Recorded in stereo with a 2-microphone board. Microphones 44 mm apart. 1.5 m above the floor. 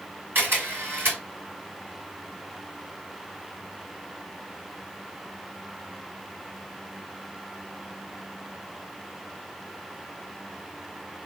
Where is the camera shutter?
50° right (ahead or behind), 3.5 m.